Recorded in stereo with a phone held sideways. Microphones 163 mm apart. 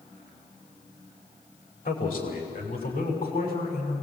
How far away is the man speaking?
About 4.5 m.